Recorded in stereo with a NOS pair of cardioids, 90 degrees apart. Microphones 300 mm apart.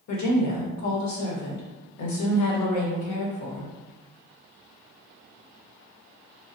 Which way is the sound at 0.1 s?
65° left.